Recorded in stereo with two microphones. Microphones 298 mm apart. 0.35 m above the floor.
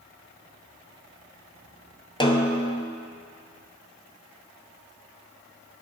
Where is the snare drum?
15° left (ahead or behind), 0.9 m.